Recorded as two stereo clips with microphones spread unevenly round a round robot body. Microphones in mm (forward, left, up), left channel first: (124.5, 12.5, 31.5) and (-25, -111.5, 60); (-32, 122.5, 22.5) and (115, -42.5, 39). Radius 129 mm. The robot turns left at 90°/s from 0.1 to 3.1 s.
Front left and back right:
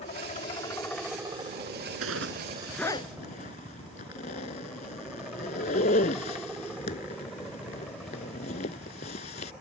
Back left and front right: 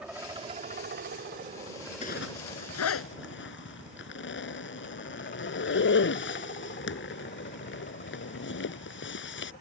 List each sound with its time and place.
0.0 s a helicopter: 35° left; by 9.6 s 125° left
2.0 s a zipper: 165° right; by 9.5 s 100° left